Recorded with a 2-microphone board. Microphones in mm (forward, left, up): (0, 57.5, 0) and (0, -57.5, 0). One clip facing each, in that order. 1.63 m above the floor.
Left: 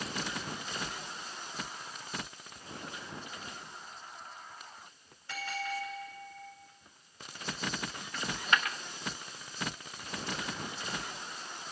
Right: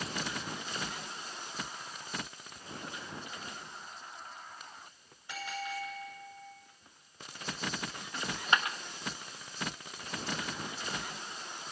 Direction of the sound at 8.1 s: 25° right (ahead or behind).